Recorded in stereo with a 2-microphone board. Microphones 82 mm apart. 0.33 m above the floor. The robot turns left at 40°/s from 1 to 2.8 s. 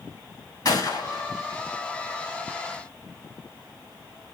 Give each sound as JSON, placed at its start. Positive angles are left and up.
{"t": 0.7, "sound": "a gunshot", "side_deg": 55, "distance_m": 2.5}